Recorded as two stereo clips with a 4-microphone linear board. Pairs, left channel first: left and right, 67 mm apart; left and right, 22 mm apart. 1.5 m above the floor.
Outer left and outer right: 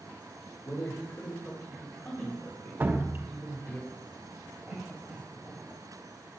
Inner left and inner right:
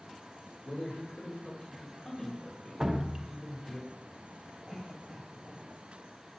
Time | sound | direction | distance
0.6 | a man speaking | 40° left (ahead or behind) | 4.5 m
2.8 | dripping | 30° right (ahead or behind) | 1.0 m
4.7 | a cough | 10° right (ahead or behind) | 8 m